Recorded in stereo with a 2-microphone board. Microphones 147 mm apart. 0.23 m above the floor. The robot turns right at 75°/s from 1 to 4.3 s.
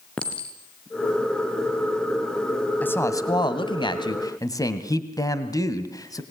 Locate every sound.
0.2 s a clink: 5° left (ahead or behind), 2.5 m; by 1.8 s 50° right (ahead or behind), 2.5 m
2.8 s a woman speaking: 20° left, 1.7 m; by 6.2 s 130° left, 1.7 m